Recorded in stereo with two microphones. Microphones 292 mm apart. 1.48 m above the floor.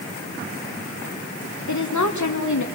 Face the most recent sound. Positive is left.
turn(degrees=75)  # may be behind; listen again after turning